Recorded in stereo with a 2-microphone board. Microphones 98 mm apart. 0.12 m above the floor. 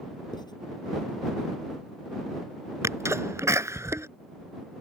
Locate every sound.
0.3 s writing: 45° left (ahead or behind)
2.8 s a sneeze: 30° right (ahead or behind)